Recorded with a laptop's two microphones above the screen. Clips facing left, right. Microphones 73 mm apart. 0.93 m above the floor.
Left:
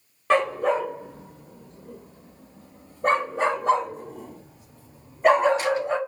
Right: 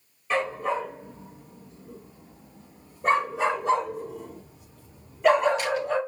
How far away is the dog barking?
About 1.0 m.